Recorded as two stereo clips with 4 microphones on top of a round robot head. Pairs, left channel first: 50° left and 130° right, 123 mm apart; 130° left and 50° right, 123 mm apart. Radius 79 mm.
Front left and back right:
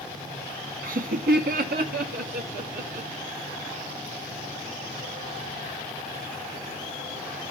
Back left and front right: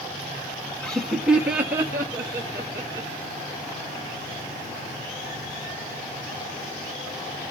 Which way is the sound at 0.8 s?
150° right.